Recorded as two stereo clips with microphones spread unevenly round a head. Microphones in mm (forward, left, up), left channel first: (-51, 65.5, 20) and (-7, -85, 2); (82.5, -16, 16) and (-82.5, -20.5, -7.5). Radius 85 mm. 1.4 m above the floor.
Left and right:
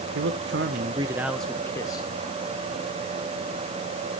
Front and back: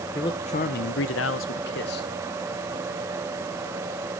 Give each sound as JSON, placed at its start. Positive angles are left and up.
{"t": 0.1, "sound": "a man speaking", "azimuth_deg": -65, "distance_m": 1.0}